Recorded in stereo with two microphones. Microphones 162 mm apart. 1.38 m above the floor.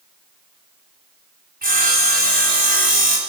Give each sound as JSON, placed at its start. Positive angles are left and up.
{"t": 1.6, "sound": "sawing", "side_deg": -70, "distance_m": 4.0}